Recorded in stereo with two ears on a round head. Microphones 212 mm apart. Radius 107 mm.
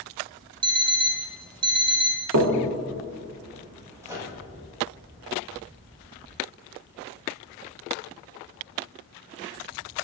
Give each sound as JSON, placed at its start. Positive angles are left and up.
{"t": 0.6, "sound": "an alarm clock", "side_deg": -20, "distance_m": 0.5}
{"t": 2.3, "sound": "knocking", "side_deg": -65, "distance_m": 0.7}
{"t": 4.0, "sound": "a microwave", "side_deg": -10, "distance_m": 1.2}